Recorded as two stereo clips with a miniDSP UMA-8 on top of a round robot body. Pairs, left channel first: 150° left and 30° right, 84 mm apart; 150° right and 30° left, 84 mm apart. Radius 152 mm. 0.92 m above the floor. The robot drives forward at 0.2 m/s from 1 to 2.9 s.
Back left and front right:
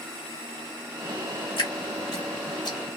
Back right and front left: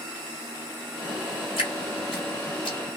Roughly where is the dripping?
Behind.